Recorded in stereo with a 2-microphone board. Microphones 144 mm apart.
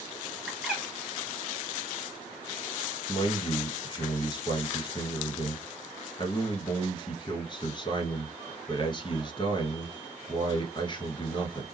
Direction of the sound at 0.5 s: Centre (ahead or behind).